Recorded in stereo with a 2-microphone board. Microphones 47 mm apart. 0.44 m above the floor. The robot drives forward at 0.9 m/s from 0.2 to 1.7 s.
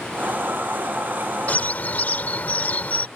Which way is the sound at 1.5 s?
35° left (ahead or behind).